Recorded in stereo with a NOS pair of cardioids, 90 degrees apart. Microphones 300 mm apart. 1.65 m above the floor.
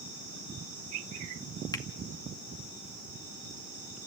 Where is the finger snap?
10° left, 2 m.